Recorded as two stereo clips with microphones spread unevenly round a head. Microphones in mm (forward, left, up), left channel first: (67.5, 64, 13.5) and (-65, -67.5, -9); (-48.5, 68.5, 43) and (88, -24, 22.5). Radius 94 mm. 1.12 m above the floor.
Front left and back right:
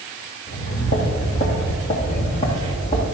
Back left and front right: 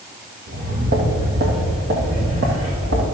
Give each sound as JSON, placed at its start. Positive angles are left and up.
{"t": 0.5, "sound": "footsteps", "azimuth_deg": 0, "distance_m": 2.5}